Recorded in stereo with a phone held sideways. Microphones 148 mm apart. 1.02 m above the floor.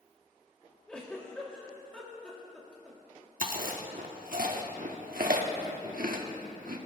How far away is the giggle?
About 2 m.